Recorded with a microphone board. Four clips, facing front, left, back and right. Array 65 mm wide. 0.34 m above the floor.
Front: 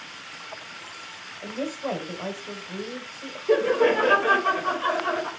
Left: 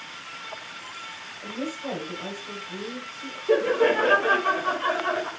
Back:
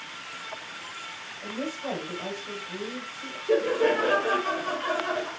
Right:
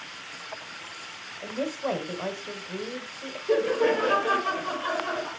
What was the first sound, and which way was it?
A woman speaking, 75° right.